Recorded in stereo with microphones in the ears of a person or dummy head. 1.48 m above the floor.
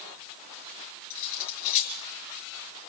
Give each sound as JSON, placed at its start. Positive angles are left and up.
{"t": 1.1, "sound": "cutlery clinking", "side_deg": 50, "distance_m": 7.0}